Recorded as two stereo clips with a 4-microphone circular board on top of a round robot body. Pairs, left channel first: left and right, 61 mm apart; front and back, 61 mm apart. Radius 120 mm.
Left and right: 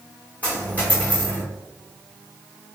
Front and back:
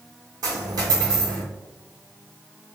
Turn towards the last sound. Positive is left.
turn(degrees=160)